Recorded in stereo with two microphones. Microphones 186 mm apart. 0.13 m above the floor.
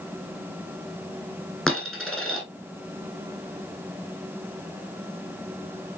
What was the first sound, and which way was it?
A dropped coin, 5° left (ahead or behind).